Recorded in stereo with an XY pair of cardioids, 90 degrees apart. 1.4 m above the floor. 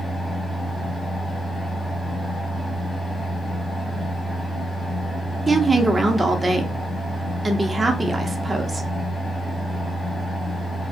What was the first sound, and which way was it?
A fan, 10° left.